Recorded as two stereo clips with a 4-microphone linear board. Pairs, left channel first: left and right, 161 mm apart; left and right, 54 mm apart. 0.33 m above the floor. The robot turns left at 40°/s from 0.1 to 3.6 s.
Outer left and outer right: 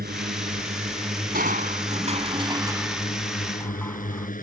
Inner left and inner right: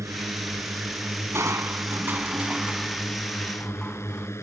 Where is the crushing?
105° right; by 4.3 s 165° left.